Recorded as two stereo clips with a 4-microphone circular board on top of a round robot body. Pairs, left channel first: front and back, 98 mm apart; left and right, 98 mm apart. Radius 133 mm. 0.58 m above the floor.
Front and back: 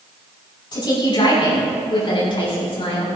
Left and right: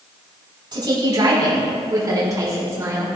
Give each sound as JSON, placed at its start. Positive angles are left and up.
{"t": 0.7, "sound": "a woman speaking", "azimuth_deg": -45, "distance_m": 5.0}